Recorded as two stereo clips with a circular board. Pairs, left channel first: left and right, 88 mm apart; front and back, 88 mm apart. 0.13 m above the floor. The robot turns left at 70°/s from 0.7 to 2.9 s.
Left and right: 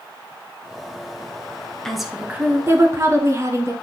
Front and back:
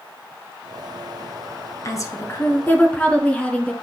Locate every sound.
1.9 s a woman speaking: 5° left, 1.5 m; by 3.7 s 65° right, 1.5 m